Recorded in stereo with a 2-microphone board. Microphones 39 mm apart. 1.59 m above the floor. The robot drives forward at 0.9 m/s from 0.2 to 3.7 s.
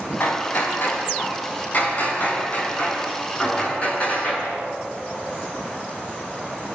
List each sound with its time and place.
0.2 s hammering: 55° left (ahead or behind), 4.5 m; by 4.6 s 30° left (ahead or behind), 7 m